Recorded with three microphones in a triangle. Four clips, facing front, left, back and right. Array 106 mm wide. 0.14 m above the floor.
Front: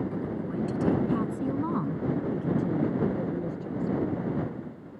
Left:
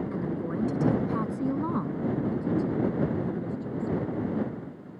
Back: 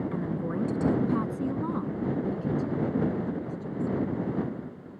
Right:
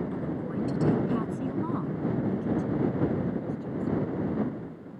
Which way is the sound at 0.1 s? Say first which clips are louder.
Left 1 dB, back 1 dB; 160° left.